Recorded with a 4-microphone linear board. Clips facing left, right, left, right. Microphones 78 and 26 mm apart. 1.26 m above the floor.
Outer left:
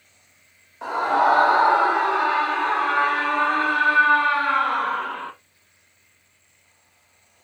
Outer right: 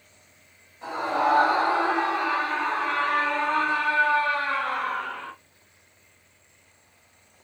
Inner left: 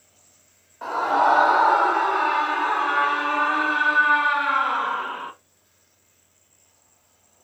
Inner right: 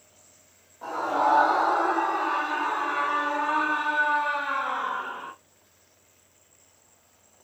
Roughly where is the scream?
Left.